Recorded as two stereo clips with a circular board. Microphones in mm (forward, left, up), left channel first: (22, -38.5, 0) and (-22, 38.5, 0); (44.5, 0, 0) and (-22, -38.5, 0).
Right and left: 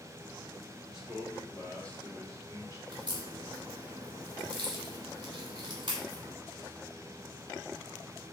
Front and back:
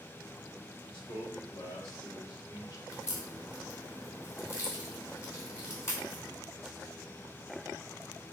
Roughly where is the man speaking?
Ahead left.